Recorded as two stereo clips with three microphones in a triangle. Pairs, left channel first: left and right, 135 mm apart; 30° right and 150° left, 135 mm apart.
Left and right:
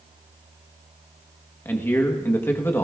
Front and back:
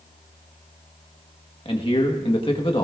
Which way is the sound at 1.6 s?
15° left.